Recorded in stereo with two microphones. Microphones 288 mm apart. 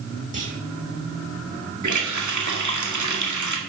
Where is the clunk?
25° right (ahead or behind), 3 m.